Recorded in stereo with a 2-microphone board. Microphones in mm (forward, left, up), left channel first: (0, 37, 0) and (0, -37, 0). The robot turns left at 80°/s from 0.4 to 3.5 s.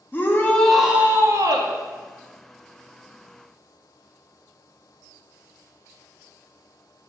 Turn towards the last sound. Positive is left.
turn(degrees=140)